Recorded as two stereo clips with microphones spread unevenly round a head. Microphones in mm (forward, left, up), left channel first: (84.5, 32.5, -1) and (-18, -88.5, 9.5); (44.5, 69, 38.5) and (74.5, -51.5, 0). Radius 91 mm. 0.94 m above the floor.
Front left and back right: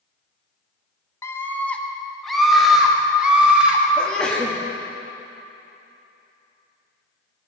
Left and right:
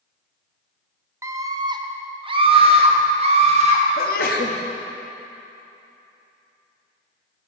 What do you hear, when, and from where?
1.2 s a scream: 20° right, 1.2 m; by 3.8 s 50° right, 3 m
4.0 s a sneeze: 135° left, 1.3 m